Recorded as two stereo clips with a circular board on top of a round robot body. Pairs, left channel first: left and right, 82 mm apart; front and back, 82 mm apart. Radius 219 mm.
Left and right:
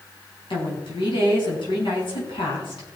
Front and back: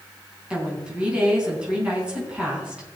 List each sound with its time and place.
0.5 s a woman speaking: 100° left, 5 m